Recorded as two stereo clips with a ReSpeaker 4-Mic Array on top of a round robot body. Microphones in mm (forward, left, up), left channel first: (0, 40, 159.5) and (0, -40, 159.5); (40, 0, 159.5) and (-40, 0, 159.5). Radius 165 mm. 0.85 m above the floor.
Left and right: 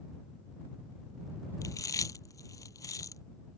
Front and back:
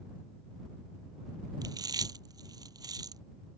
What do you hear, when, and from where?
1.6 s chewing: 140° left